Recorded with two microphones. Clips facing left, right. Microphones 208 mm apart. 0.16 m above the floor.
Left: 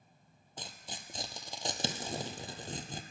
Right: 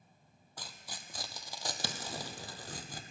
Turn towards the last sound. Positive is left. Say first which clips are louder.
# left 3 dB
turn(degrees=25)  # may be behind; listen again after turning